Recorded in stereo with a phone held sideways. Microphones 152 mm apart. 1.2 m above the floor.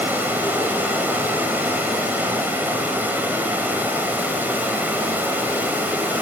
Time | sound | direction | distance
0.0 | running water | 10° right (ahead or behind) | 1.7 m